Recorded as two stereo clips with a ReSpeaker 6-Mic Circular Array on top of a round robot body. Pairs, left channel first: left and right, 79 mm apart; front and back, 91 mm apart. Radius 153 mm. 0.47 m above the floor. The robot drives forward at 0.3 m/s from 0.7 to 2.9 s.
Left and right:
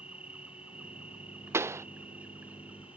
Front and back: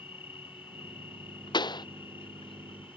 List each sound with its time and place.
0.0 s an insect: 15° right
1.5 s a pop: 35° right; by 1.9 s 40° right